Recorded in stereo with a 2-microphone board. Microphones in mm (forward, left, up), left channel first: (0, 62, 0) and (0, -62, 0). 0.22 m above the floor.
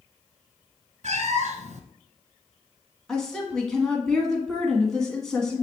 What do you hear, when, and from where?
1.0 s a cat meowing: 70° right (ahead or behind), 0.8 m
3.1 s a woman speaking: 5° left (ahead or behind), 1.8 m